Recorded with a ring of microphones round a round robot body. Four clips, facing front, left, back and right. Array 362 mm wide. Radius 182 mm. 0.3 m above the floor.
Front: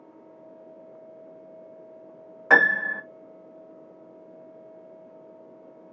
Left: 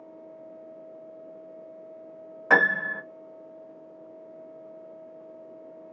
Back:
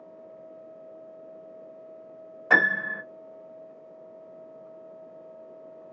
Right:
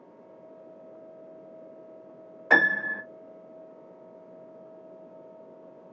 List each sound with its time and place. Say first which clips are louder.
2.5 s a piano: left 1 dB, front 3 dB; 30° left, 1.3 m